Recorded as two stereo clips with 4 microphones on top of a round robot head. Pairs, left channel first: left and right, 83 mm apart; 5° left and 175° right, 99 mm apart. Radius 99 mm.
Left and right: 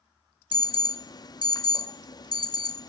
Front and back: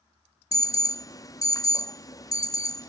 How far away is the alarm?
About 1.0 m.